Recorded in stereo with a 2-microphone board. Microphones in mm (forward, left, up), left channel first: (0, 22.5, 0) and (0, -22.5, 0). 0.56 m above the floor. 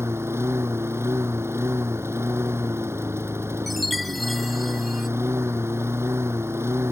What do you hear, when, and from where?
0.0 s a lawn mower: 80° right
3.7 s a chime: centre (ahead or behind)